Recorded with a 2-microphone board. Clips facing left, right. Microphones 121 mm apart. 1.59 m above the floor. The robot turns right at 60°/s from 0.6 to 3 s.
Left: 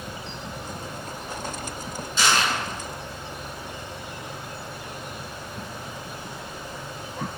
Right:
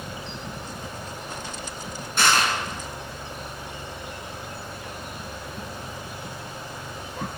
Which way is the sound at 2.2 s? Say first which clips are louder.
Right 1 dB; 65° right (ahead or behind).